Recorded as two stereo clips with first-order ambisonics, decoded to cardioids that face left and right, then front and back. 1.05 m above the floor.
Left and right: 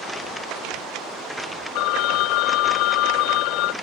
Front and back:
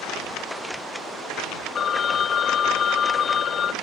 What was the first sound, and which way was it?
A phone ringing, 60° left.